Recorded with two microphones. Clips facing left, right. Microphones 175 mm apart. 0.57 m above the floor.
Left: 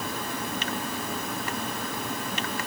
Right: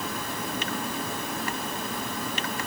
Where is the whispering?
No whispering in this recording.